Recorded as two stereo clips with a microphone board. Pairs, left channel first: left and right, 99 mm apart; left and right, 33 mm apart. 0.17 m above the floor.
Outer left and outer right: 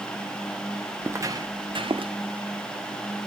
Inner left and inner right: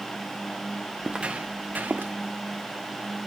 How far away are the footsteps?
About 0.9 m.